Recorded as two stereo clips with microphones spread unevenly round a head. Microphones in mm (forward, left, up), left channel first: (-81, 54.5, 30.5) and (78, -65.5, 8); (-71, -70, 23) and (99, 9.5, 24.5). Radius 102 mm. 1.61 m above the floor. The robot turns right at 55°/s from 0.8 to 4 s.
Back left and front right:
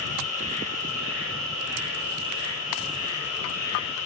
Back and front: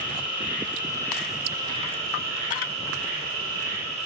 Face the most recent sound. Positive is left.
turn(degrees=85)